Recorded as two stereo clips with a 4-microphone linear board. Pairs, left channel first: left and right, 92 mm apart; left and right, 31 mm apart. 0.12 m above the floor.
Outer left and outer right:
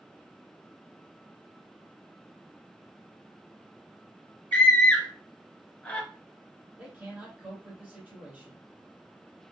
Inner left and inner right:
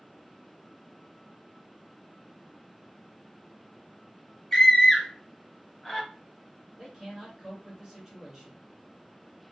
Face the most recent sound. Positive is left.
turn(degrees=-20)  # may be behind; listen again after turning